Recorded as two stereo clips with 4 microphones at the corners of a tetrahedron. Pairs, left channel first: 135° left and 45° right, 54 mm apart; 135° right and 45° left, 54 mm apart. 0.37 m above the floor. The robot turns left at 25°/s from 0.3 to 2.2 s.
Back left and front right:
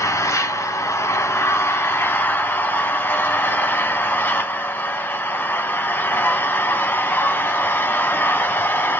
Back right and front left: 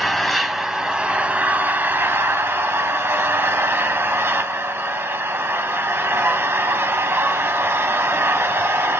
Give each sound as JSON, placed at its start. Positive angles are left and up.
{"t": 0.0, "sound": "an engine running", "azimuth_deg": 135, "distance_m": 0.8}